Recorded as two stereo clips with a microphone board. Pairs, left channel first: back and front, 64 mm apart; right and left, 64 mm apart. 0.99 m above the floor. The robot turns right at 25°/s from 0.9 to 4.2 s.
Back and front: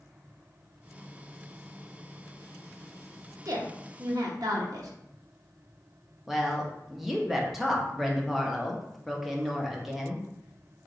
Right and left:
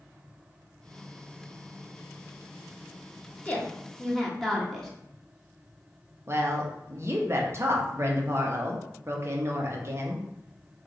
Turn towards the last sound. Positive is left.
turn(degrees=85)